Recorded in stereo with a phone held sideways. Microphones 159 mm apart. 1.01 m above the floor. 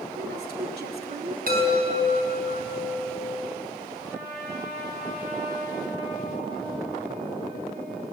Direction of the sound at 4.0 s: 20° right (ahead or behind).